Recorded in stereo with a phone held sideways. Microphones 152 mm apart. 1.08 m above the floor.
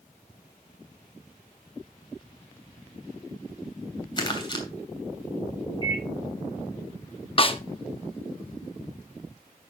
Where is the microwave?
25° left (ahead or behind), 7.5 m.